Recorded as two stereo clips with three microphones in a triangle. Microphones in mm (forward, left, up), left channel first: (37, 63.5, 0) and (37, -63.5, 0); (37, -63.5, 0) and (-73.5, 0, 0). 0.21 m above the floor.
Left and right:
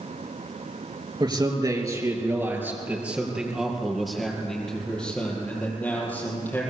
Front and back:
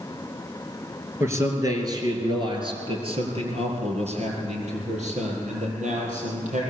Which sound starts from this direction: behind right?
A man speaking, at 1.2 s.